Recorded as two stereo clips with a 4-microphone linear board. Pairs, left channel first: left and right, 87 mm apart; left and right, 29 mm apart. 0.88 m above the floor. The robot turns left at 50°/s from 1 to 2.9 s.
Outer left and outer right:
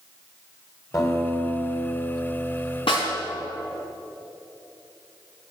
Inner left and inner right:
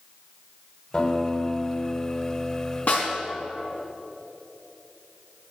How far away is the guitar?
About 2 m.